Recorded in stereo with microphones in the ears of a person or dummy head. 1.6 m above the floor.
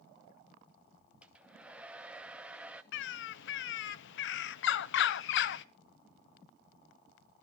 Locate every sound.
1.2 s a hair dryer: 5° right (ahead or behind), 0.9 m
2.9 s a bird: 65° left (ahead or behind), 0.7 m